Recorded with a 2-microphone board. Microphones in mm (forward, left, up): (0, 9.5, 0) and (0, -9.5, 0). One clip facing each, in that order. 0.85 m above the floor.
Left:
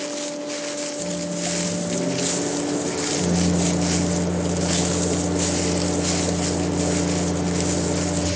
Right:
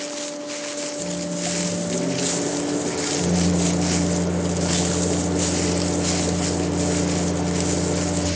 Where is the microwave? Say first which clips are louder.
Even; 10° right (ahead or behind), 1.2 m.